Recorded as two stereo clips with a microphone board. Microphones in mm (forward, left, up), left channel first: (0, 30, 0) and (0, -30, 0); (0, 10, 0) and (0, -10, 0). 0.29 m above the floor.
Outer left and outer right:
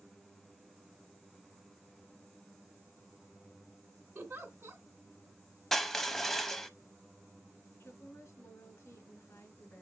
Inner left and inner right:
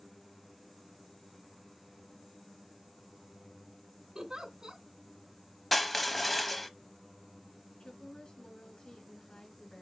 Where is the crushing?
5° left (ahead or behind), 0.6 m.